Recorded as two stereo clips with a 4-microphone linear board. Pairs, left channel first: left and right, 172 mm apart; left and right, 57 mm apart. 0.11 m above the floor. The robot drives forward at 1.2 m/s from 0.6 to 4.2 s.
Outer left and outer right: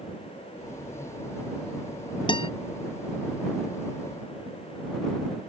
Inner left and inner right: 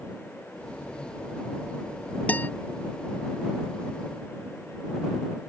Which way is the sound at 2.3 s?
25° left (ahead or behind).